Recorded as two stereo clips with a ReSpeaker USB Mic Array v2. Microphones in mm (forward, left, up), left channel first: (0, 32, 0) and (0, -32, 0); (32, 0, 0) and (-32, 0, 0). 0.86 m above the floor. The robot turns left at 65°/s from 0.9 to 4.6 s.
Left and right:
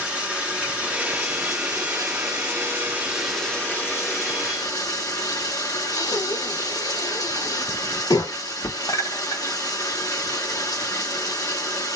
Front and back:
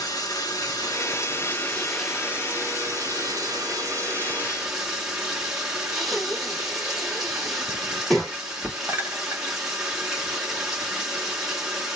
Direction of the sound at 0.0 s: 20° right.